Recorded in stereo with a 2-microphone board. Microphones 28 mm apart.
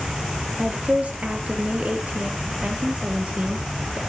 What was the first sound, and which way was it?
A woman speaking, 60° right (ahead or behind).